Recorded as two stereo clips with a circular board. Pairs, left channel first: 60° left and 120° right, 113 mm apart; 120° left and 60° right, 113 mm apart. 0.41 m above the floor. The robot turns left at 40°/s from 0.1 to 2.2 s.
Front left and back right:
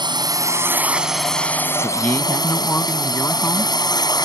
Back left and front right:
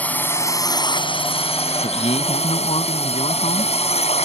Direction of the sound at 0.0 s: 165° right.